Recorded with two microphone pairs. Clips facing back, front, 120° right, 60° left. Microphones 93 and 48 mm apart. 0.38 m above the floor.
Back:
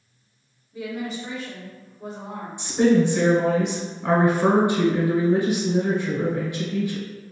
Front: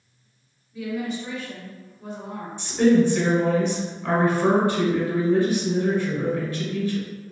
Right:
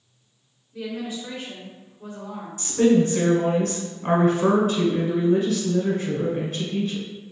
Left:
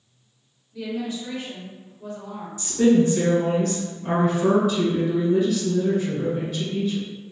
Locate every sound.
0.7 s a woman speaking: 175° left, 1.5 m
2.6 s a woman speaking: 115° right, 1.1 m